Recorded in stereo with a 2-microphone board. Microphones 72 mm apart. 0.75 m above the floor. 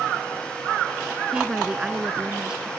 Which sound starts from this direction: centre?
A woman speaking, at 1.3 s.